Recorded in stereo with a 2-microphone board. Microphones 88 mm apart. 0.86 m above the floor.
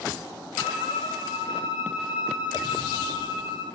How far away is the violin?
About 4.5 m.